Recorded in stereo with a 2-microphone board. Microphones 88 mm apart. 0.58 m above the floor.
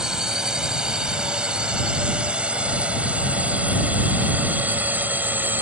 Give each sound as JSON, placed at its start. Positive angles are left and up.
{"t": 0.0, "sound": "a drone", "side_deg": -10}